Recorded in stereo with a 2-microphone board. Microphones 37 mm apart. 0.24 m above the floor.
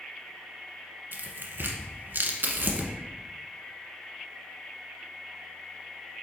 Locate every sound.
1.1 s tearing paper: 65° right (ahead or behind), 1.0 m